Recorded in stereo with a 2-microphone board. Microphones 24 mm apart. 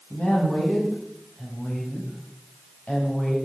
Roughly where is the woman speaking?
Left.